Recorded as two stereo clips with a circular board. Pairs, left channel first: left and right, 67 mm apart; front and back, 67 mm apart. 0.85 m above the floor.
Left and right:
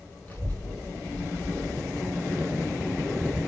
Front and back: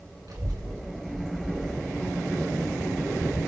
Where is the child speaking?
155° left, 2 m; by 3.4 s 125° left, 5.5 m.